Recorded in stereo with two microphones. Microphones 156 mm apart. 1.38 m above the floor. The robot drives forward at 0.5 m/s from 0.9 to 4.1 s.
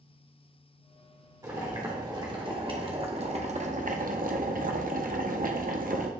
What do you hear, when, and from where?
1.4 s boiling: 20° right (ahead or behind), 1.8 m; by 6.1 s 65° right (ahead or behind), 0.8 m